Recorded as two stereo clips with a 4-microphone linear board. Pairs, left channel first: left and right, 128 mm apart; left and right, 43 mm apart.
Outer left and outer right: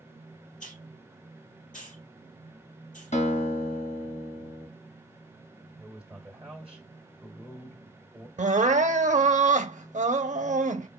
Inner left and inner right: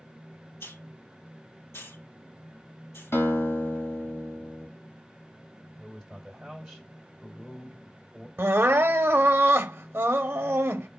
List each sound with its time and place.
0.6 s a hiss: 80° left, 3 m
3.1 s a guitar: 70° left (ahead or behind), 2.0 m
5.8 s a man speaking: 5° right (ahead or behind), 1.6 m
8.4 s crying: 70° right (ahead or behind), 0.5 m